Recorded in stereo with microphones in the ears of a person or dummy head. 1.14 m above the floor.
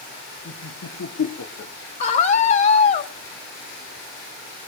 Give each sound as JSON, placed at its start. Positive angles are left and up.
{"t": 0.5, "sound": "laughter", "side_deg": 85, "distance_m": 3.0}
{"t": 2.0, "sound": "a scream", "side_deg": 45, "distance_m": 2.5}